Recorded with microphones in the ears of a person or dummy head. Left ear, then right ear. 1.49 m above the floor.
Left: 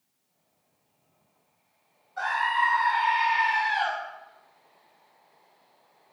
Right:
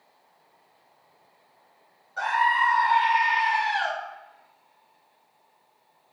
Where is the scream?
15° right (ahead or behind), 0.9 m.